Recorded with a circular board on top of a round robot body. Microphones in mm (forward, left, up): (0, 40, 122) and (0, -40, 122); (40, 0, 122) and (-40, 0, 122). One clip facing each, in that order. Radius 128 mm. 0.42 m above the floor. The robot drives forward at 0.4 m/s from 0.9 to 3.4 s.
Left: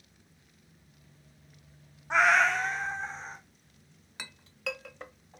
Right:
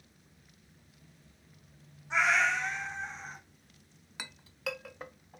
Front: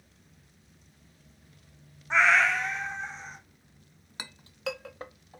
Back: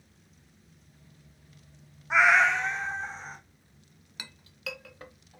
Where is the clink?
10° right, 0.5 m.